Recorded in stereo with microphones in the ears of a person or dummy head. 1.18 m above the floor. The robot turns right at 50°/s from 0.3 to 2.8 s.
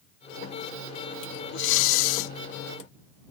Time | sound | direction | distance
1.5 | breathing | 60° left | ?